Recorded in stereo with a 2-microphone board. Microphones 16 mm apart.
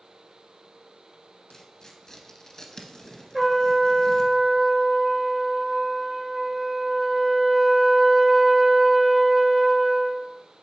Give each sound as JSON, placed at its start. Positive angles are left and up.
{"t": 1.5, "sound": "tearing paper", "side_deg": 30, "distance_m": 1.3}
{"t": 3.3, "sound": "a trumpet", "side_deg": -25, "distance_m": 1.2}